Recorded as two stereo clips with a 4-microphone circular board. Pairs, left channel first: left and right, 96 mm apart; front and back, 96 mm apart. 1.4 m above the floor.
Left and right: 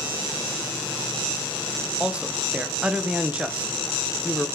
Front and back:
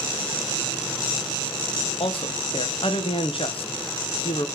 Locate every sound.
2.0 s a man speaking: 15° right, 1.3 m